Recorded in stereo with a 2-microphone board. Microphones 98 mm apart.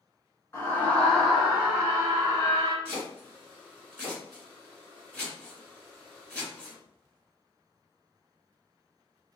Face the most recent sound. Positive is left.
turn(degrees=10)  # may be behind; listen again after turning